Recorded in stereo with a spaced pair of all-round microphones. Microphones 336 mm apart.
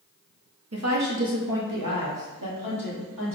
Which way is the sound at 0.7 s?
45° right (ahead or behind).